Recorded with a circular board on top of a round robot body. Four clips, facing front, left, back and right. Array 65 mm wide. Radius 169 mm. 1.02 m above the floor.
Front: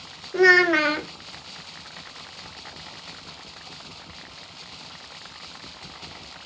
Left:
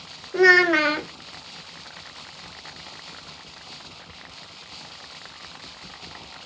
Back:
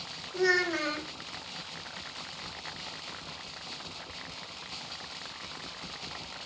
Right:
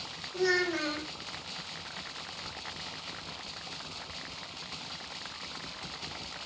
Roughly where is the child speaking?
Ahead left.